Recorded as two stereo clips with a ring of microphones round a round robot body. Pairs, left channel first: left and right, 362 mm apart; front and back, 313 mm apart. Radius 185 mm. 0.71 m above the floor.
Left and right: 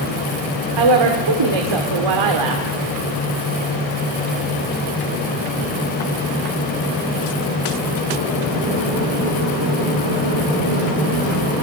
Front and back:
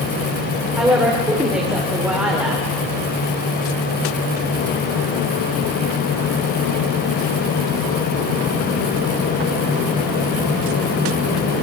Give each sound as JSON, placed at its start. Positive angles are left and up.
{"t": 0.8, "sound": "a woman speaking", "azimuth_deg": -95, "distance_m": 2.0}